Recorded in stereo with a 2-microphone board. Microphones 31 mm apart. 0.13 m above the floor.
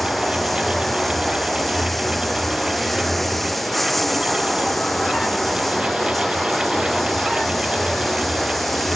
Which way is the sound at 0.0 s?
5° left (ahead or behind).